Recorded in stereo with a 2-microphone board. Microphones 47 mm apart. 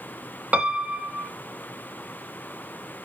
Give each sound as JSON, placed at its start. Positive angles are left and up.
{"t": 0.5, "sound": "a piano", "side_deg": -25, "distance_m": 0.9}